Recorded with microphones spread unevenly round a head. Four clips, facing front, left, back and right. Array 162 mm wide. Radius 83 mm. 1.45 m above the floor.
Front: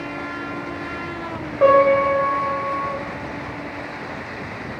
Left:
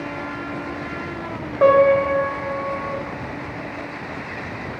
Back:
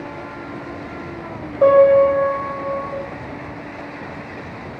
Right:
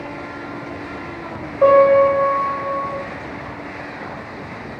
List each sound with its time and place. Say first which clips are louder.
1.6 s a piano: right 3 dB, back 3 dB; 70° left, 1.2 m